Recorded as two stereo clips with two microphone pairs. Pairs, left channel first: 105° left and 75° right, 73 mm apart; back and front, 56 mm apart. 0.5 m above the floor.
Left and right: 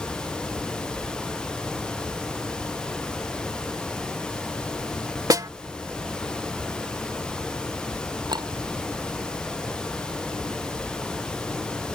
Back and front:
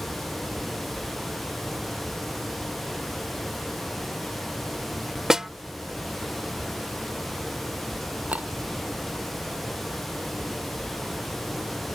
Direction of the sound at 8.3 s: 65° right.